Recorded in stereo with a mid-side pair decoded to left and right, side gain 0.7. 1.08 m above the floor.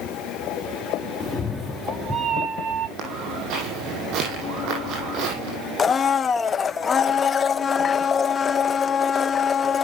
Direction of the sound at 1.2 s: 20° left.